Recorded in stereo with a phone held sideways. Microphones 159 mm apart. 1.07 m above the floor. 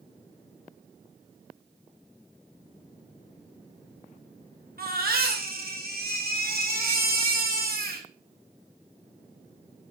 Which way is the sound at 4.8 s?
75° right (ahead or behind).